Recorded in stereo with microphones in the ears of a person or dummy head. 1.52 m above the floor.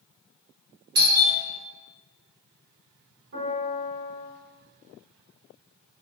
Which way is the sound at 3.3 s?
50° right (ahead or behind).